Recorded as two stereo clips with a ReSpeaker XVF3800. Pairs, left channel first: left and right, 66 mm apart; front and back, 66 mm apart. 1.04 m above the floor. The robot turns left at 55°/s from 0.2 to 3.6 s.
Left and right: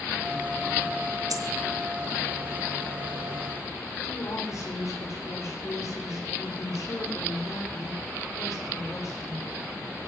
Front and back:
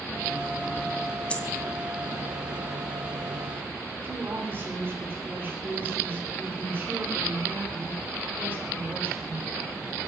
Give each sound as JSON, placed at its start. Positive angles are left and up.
{"t": 1.3, "sound": "a dropped coin", "azimuth_deg": -70, "distance_m": 2.5}
{"t": 4.0, "sound": "a woman speaking", "azimuth_deg": 125, "distance_m": 3.0}